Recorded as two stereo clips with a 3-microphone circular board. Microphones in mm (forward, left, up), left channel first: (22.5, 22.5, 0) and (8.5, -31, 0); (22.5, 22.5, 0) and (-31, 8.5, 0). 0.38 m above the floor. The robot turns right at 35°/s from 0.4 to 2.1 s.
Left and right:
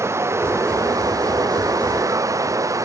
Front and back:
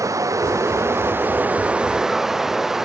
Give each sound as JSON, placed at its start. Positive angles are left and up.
{"t": 0.0, "sound": "running water", "azimuth_deg": -140}